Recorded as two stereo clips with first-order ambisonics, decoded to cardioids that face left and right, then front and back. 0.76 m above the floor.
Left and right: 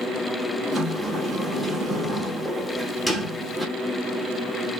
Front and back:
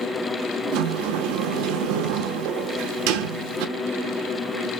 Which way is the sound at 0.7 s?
Straight behind.